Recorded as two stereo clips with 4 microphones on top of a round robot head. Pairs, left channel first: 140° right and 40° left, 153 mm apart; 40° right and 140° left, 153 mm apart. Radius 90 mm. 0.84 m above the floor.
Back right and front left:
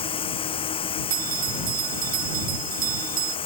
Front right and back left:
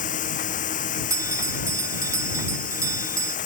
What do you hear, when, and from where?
0.0 s running water: 80° right
1.1 s a bell: 70° left